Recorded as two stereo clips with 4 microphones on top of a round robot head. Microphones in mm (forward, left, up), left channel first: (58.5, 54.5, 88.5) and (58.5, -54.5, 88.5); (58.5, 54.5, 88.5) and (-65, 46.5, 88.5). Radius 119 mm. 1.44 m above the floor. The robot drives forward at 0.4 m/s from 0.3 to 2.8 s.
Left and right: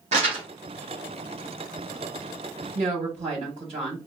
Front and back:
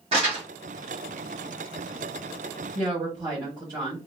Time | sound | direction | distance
0.1 | crumpling | 125° right | 1.0 m
2.8 | a woman speaking | 110° right | 1.6 m